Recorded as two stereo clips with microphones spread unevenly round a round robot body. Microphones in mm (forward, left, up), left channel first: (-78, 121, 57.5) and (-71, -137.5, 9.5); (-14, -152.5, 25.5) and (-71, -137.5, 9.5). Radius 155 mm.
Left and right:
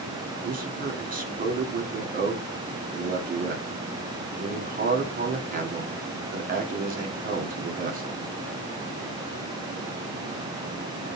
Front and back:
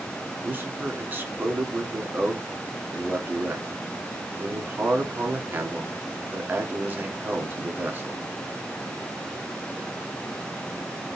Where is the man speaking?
145° right, 1.6 m.